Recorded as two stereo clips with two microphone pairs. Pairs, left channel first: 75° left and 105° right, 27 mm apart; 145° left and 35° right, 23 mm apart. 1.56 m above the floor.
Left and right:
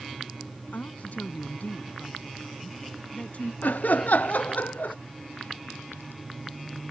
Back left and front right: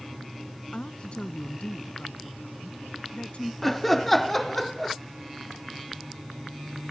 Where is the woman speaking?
105° left; by 3.5 s 115° left.